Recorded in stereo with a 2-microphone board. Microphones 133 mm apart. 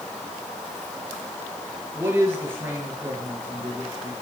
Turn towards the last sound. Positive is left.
turn(degrees=-15)  # may be behind; listen again after turning